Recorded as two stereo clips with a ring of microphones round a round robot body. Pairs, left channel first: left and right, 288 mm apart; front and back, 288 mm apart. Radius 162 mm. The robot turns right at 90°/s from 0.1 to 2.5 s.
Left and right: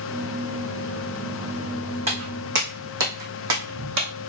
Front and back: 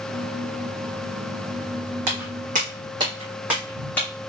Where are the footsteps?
160° right, 2 m; by 4.1 s 80° right, 1.8 m.